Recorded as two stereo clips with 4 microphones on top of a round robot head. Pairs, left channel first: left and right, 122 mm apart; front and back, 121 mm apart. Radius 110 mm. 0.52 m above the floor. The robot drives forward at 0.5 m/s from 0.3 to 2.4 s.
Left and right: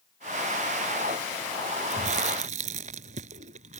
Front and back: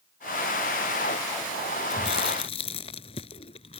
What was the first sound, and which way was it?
Chewing, 50° right.